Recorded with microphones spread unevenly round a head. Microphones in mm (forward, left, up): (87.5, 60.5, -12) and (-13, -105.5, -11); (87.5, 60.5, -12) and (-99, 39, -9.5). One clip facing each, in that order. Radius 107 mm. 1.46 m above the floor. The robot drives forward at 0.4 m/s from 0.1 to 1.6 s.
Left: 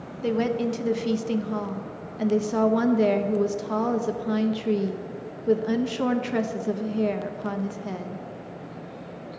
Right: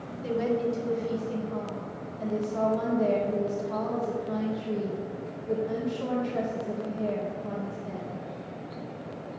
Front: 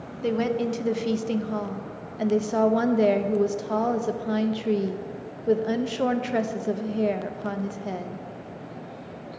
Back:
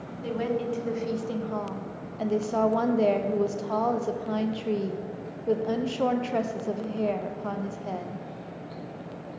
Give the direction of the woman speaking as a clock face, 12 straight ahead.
11 o'clock.